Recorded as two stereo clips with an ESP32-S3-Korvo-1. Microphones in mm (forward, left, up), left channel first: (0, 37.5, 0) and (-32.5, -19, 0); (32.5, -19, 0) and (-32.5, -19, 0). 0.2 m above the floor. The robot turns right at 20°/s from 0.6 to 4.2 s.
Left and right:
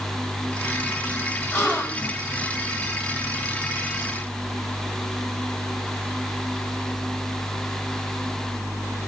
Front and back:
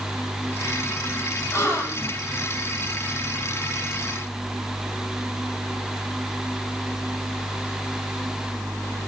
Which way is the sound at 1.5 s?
15° left.